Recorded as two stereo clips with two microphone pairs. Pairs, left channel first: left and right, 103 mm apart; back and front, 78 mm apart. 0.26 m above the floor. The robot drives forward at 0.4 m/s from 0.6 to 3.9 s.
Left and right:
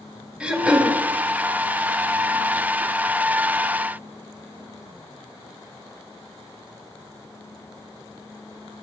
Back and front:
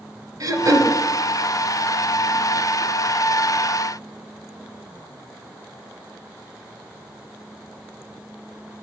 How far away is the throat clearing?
About 0.9 m.